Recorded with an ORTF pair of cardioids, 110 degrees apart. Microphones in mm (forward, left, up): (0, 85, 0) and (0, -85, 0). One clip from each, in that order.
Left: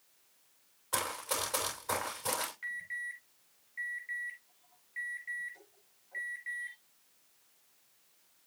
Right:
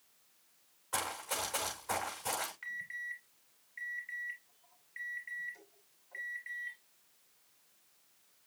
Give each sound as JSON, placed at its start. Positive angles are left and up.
{"t": 0.9, "sound": "running footsteps", "azimuth_deg": 30, "distance_m": 6.5}
{"t": 2.6, "sound": "an alarm", "azimuth_deg": -15, "distance_m": 6.5}